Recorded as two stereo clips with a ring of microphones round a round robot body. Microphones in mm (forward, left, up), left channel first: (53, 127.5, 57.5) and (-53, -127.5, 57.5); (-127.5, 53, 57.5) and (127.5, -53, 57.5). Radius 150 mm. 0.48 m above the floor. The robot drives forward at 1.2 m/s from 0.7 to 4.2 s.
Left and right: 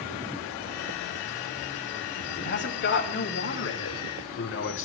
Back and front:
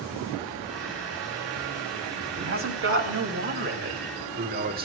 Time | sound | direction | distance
2.4 | a man speaking | 15° left | 4.5 m